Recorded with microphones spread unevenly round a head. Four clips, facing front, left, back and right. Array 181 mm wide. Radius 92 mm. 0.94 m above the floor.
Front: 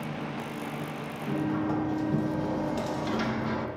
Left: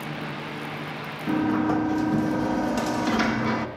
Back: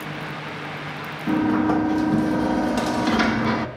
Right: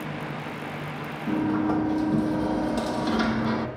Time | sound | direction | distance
1.3 | a sliding door | 165° left | 1.2 m